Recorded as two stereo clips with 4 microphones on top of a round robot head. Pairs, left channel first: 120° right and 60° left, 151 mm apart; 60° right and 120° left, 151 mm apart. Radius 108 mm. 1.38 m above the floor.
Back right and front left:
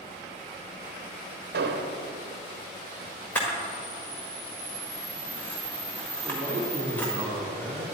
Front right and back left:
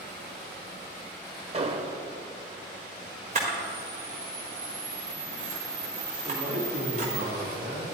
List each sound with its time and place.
1.5 s an explosion: 70° left, 0.9 m
3.4 s a camera shutter: 160° left, 1.5 m
6.2 s a man speaking: 150° left, 3 m